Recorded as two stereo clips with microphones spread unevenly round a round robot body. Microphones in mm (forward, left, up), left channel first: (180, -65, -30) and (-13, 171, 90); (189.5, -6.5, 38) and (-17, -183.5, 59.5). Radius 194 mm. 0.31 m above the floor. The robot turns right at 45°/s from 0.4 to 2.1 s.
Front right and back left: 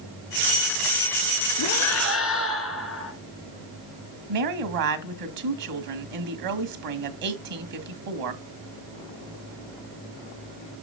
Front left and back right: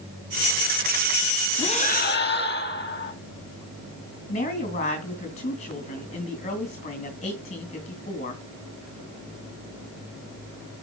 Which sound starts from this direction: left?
A woman speaking, at 4.3 s.